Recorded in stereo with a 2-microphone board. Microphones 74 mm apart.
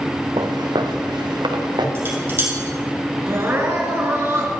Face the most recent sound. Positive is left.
turn(degrees=-35)  # may be behind; listen again after turning